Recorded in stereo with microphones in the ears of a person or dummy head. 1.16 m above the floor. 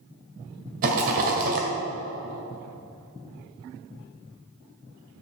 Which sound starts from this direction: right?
A rattle, at 0.8 s.